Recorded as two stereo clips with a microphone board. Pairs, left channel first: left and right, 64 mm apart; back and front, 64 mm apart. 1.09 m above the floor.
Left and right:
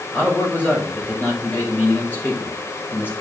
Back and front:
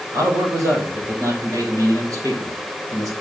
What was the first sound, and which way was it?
A man speaking, 30° left.